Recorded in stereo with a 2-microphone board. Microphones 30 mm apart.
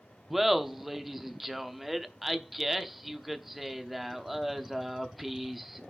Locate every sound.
0.3 s laughter: 5° right (ahead or behind), 0.7 m